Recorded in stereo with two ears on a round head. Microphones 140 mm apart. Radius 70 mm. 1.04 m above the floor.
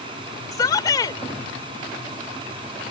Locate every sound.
0.5 s a shout: 25° left (ahead or behind)